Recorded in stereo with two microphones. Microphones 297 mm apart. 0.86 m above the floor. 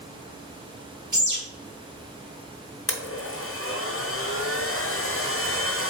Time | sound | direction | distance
1.1 | a bird | 75° right (ahead or behind) | 1.7 m
2.9 | a blender | 45° left (ahead or behind) | 0.7 m